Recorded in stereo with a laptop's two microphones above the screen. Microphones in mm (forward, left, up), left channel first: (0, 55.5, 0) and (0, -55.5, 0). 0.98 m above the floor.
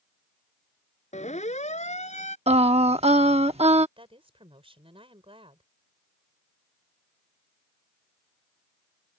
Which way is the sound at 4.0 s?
50° right (ahead or behind).